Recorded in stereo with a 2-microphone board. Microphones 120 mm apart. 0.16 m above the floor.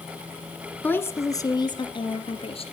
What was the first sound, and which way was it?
A woman speaking, 15° left (ahead or behind).